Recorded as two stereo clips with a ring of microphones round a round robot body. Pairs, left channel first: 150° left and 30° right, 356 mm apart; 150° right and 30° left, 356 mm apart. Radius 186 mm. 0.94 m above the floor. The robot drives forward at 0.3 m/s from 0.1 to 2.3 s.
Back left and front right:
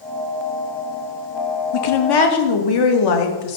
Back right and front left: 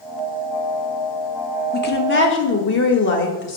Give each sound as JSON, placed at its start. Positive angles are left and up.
{"t": 1.7, "sound": "a woman speaking", "azimuth_deg": 145, "distance_m": 0.9}